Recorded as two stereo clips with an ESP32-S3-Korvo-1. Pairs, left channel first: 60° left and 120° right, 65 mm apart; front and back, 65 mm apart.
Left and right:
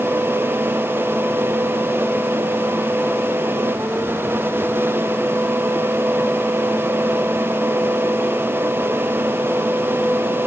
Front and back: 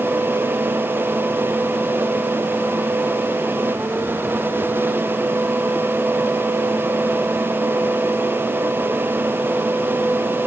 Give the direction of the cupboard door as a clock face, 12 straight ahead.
No cupboard door in this recording.